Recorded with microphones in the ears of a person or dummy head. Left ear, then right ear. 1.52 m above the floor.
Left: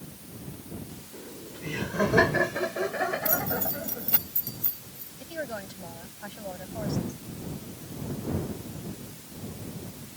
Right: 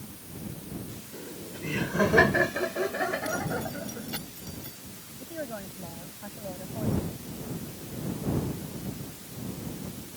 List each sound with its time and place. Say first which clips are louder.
1.1 s laughter: right 2 dB; 10° left (ahead or behind); by 4.2 s 30° left (ahead or behind)
3.2 s keys jangling: left 1 dB; 40° left (ahead or behind)
5.2 s a woman speaking: left 2 dB; 90° left